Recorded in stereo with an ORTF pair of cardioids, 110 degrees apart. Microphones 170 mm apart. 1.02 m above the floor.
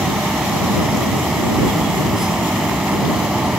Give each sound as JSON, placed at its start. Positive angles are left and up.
{"t": 0.0, "sound": "a fan", "azimuth_deg": -5}